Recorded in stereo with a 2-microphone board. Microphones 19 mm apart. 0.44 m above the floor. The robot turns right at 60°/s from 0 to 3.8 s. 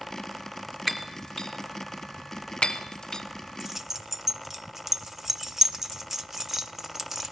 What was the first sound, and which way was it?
Breaking glass, 5° left (ahead or behind).